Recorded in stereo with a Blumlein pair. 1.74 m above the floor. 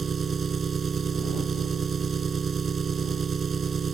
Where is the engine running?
20° right.